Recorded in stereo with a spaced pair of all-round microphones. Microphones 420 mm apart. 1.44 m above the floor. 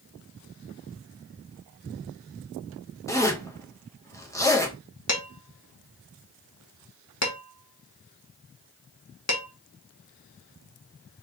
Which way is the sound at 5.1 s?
40° left (ahead or behind).